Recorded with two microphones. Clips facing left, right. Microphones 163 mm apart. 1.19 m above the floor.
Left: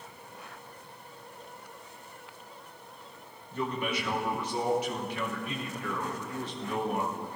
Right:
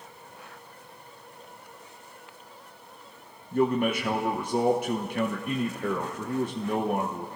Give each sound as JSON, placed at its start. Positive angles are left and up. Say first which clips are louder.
{"t": 3.5, "sound": "a man speaking", "louder": "right 9 dB", "side_deg": -50, "distance_m": 0.6}